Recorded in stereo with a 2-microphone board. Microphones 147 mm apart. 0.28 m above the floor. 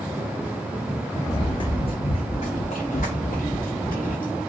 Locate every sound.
1.3 s running footsteps: 25° left (ahead or behind), 1.0 m; by 4.4 s 80° left, 1.7 m